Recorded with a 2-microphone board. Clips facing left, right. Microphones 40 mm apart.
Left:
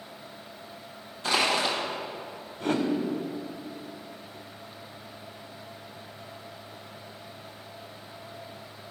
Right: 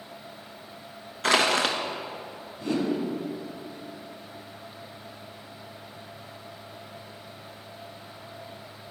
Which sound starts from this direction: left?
A whoosh, at 2.6 s.